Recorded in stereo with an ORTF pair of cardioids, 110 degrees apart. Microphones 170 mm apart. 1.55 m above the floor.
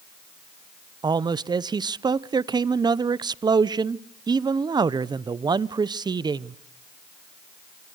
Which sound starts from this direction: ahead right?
A man speaking, at 1.0 s.